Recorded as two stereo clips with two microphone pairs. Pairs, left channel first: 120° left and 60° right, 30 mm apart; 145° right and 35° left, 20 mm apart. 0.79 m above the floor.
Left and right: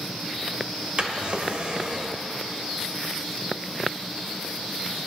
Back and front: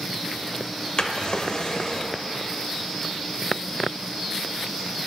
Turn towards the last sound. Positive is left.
turn(degrees=-100)